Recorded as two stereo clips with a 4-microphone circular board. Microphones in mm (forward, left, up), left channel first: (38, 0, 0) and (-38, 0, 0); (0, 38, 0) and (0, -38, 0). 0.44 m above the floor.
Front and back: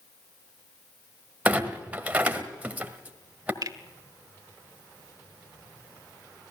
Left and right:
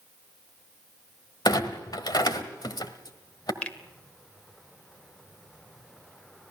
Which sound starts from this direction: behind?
A finger snap, at 3.6 s.